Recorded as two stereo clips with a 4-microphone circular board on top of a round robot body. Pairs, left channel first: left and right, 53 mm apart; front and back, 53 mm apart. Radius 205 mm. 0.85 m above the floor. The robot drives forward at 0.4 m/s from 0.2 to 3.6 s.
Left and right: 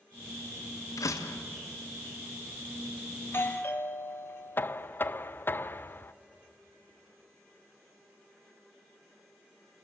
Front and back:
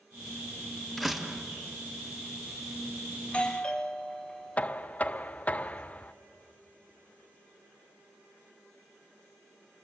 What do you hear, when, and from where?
1.0 s a door slam: 85° left, 1.2 m; by 1.4 s 95° left, 1.3 m
3.2 s a doorbell: 60° left, 1.7 m; by 4.7 s 65° left, 1.7 m
4.6 s knocking: 55° left, 0.7 m